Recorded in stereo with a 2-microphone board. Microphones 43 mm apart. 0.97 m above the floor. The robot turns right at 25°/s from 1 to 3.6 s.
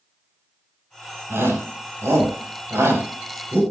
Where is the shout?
70° right (ahead or behind), 6 m; by 3.6 s 55° right (ahead or behind), 6 m.